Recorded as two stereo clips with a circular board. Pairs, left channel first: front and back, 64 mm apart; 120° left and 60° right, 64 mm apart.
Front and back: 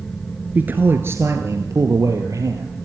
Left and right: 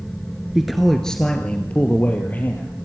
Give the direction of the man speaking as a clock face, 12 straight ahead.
5 o'clock.